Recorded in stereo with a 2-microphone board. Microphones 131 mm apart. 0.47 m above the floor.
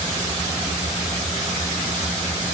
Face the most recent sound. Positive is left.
No sound to turn to.